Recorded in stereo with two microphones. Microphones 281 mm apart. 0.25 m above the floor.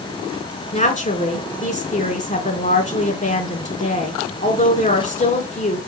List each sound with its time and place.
0.7 s a woman speaking: 30° left (ahead or behind), 3 m